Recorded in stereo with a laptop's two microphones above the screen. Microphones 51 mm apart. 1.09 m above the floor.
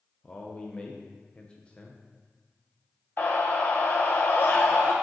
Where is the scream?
40° left (ahead or behind), 0.6 m.